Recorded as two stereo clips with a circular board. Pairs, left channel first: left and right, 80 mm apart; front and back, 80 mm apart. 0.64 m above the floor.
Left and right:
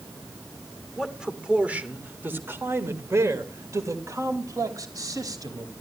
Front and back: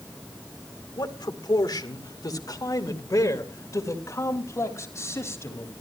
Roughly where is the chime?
No chime in this recording.